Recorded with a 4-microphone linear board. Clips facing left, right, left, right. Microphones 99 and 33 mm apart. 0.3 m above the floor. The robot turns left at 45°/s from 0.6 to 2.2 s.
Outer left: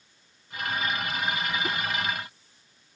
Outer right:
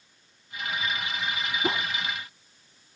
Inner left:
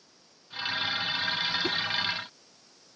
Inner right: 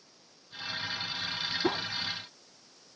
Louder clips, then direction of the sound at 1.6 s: Outer right 3 dB, inner left 1 dB; 30° right (ahead or behind).